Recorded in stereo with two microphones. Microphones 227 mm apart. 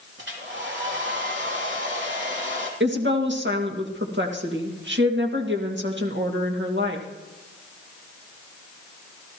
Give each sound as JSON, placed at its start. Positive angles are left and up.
{"t": 0.2, "sound": "a hair dryer", "side_deg": -55, "distance_m": 3.0}
{"t": 2.8, "sound": "a woman speaking", "side_deg": -55, "distance_m": 1.9}